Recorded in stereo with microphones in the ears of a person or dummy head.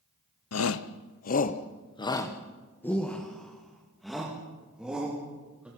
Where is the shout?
75° left (ahead or behind), 0.9 m; by 5.7 s 10° right (ahead or behind), 4 m.